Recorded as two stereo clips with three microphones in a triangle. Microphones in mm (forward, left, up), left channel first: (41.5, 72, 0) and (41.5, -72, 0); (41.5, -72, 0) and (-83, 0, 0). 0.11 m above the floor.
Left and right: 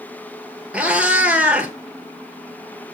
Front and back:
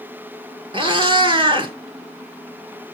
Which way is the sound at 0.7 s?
170° right.